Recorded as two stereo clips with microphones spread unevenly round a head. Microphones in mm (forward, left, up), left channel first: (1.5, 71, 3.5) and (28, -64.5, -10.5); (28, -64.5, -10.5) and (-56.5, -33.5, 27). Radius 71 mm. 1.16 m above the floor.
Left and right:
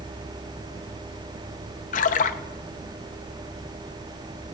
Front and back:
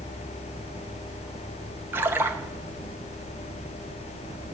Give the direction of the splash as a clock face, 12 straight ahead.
10 o'clock.